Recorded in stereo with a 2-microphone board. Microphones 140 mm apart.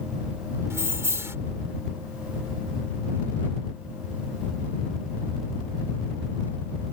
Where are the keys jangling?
20° right (ahead or behind).